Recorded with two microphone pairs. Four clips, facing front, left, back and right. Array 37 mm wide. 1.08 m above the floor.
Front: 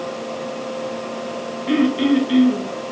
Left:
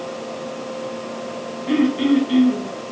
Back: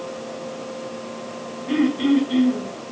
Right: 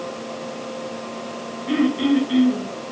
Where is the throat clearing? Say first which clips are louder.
Left 2 dB, front 2 dB; 5° left, 2 m.